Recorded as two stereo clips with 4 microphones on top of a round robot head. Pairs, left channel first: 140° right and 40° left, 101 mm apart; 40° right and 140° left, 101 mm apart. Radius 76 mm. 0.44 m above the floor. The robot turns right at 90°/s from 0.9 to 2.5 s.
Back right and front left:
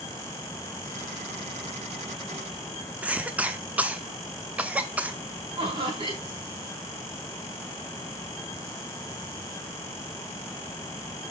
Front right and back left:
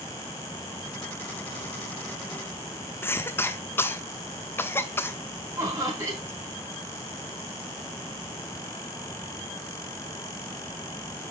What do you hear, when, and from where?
3.0 s a cough: 15° right, 0.9 m
5.6 s laughter: 75° left, 4.5 m